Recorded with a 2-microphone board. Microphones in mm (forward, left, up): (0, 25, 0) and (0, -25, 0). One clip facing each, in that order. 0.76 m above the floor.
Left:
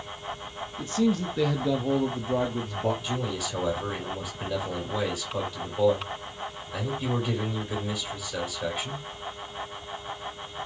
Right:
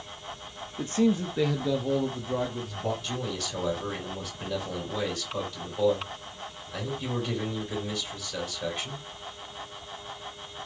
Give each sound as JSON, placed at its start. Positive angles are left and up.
{"t": 0.8, "sound": "a man speaking", "side_deg": -40, "distance_m": 0.7}
{"t": 3.0, "sound": "a man speaking", "side_deg": 10, "distance_m": 2.5}